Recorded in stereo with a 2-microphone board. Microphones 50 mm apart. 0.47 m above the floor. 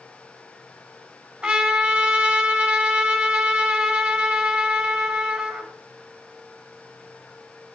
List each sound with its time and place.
1.4 s a trumpet: 15° right (ahead or behind), 4.5 m